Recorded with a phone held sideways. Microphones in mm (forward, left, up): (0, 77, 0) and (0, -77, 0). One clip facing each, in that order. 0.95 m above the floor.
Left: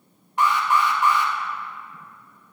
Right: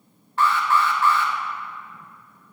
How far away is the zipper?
I don't hear a zipper.